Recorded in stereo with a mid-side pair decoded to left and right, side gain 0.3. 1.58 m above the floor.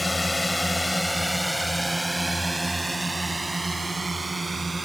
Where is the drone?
20° left; by 4.8 s 35° right.